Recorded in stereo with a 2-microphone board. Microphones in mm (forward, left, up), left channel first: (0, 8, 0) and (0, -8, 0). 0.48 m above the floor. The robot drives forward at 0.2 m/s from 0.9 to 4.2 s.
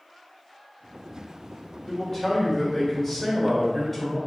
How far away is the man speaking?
About 1.5 m.